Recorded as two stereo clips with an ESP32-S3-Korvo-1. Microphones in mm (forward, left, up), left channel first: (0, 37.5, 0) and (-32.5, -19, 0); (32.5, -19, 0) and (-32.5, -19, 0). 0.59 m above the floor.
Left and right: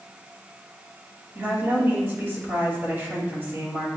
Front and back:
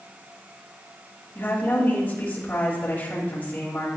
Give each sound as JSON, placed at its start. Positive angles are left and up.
{"t": 1.4, "sound": "a woman speaking", "azimuth_deg": -65, "distance_m": 3.0}